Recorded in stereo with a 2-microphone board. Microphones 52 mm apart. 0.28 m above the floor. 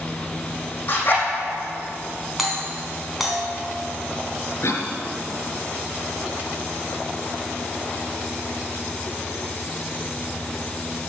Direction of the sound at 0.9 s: 35° left (ahead or behind).